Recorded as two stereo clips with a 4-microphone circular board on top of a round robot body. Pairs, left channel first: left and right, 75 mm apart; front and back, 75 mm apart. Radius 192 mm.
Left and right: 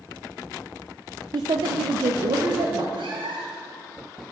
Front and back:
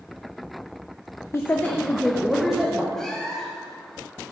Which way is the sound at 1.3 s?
55° right.